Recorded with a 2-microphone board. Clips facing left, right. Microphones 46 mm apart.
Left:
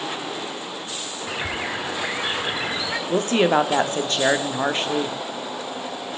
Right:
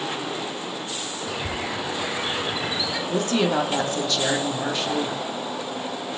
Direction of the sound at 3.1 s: 35° left (ahead or behind).